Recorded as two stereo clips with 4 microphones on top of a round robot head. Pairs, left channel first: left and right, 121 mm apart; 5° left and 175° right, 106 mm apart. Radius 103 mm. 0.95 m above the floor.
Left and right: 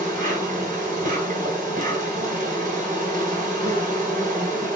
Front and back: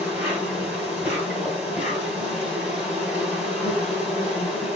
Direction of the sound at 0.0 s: 90° right.